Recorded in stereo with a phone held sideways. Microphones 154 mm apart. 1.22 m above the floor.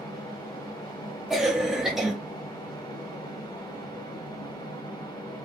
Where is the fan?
25° left (ahead or behind), 1.2 m.